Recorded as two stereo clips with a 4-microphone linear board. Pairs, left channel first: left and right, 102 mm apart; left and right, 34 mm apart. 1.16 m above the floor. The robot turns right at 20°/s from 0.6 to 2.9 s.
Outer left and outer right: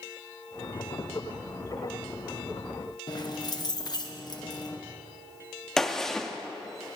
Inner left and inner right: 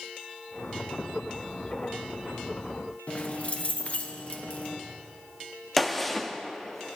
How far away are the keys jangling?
About 0.9 m.